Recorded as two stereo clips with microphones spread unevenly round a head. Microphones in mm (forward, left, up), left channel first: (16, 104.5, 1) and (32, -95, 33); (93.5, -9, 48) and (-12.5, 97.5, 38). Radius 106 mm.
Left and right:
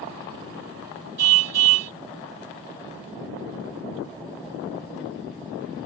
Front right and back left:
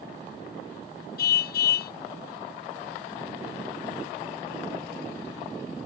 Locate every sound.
1.2 s a car horn: 90° right